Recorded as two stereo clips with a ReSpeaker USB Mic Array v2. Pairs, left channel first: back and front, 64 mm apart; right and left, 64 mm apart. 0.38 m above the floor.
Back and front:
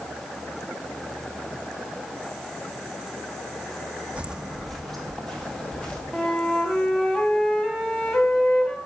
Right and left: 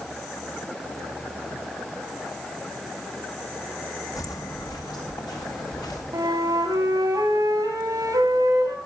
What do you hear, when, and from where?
4.2 s footsteps: 70° right, 0.9 m; by 6.0 s 100° right, 3 m
6.1 s a flute: 105° left, 2.5 m